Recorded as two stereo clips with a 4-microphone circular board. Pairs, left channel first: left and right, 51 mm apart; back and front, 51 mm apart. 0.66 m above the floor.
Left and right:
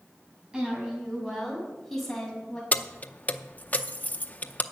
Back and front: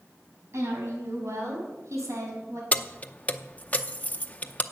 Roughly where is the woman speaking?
Ahead.